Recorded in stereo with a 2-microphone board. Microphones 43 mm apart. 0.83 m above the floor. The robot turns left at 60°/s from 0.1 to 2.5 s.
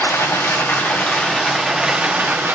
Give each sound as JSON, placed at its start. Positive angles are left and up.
{"t": 0.0, "sound": "running water", "azimuth_deg": 90, "distance_m": 1.5}